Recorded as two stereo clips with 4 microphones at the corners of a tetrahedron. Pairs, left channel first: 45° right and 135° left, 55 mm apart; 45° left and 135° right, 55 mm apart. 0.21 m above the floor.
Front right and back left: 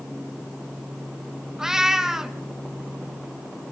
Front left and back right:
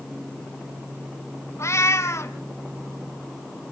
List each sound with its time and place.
1.6 s a cat meowing: 55° left, 1.0 m